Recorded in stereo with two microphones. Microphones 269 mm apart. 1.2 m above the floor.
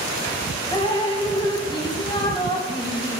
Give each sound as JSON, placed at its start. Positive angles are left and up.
{"t": 0.7, "sound": "dripping", "side_deg": 15, "distance_m": 0.6}